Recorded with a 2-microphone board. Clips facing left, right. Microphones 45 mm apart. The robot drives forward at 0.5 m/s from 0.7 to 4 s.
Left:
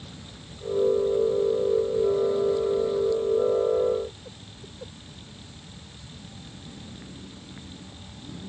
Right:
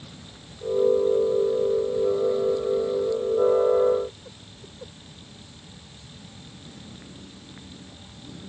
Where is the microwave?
I don't hear a microwave.